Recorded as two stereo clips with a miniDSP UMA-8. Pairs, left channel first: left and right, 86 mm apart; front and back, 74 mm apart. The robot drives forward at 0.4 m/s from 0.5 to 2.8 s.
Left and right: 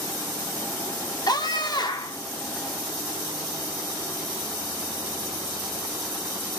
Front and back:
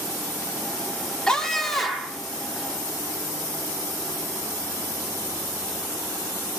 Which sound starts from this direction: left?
A scream, at 1.3 s.